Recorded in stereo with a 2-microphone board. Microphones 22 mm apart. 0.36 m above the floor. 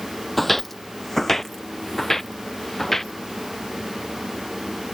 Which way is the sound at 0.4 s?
Centre (ahead or behind).